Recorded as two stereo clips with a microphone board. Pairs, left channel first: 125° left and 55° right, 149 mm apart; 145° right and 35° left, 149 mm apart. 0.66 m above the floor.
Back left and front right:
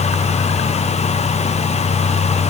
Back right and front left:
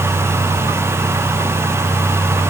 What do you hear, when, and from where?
Only background noise.